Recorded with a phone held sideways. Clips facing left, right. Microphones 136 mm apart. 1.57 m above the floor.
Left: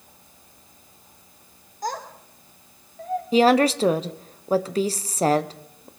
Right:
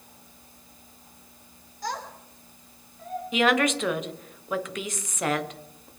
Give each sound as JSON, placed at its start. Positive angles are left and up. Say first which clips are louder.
{"t": 1.8, "sound": "a child speaking", "louder": "left 3 dB", "side_deg": 45, "distance_m": 3.0}
{"t": 3.3, "sound": "a woman speaking", "louder": "left 6 dB", "side_deg": 35, "distance_m": 0.8}